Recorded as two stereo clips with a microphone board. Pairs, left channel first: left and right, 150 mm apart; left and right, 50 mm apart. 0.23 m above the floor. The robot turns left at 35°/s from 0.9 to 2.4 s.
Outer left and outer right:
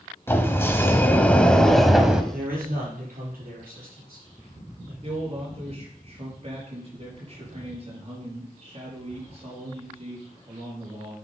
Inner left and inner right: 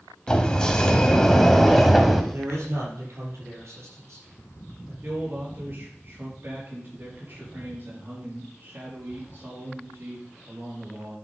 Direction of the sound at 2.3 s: 75° right (ahead or behind).